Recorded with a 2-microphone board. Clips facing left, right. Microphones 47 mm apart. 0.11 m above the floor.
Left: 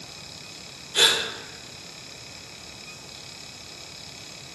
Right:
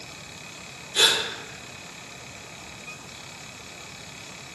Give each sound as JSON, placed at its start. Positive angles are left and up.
{"t": 0.9, "sound": "a gasp", "side_deg": 35, "distance_m": 0.8}